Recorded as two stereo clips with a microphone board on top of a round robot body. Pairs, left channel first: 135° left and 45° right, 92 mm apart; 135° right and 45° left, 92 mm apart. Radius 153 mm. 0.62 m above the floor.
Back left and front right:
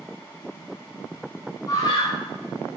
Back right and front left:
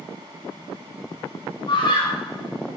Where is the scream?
175° right, 3 m; by 2.8 s 170° left, 3.5 m.